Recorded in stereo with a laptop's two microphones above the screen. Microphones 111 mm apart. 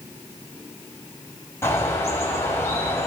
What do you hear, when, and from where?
1.6 s a bird: 25° left (ahead or behind), 3 m